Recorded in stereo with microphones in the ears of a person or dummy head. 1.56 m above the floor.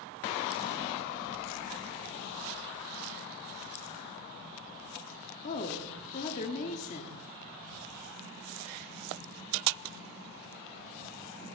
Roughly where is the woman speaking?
Left.